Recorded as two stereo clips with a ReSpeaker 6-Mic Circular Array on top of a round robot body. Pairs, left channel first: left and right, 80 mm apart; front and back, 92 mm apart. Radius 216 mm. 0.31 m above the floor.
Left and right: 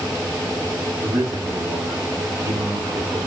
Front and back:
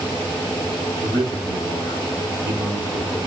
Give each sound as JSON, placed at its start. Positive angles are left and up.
{"t": 1.0, "sound": "a man speaking", "azimuth_deg": -140, "distance_m": 4.5}